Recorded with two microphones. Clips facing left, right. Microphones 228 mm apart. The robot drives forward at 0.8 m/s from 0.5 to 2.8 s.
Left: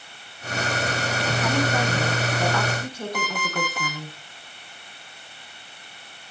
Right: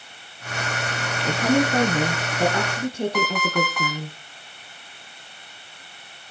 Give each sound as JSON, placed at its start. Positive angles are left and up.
{"t": 1.2, "sound": "a woman speaking", "side_deg": -35, "distance_m": 1.3}
{"t": 3.1, "sound": "an alarm clock", "side_deg": 30, "distance_m": 5.0}